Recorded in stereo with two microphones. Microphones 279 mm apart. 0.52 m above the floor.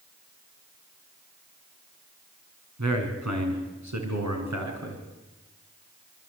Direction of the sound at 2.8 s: 75° right (ahead or behind).